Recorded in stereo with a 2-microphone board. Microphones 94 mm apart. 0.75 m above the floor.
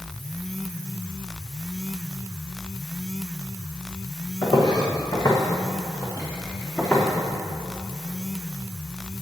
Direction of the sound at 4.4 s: 50° left (ahead or behind).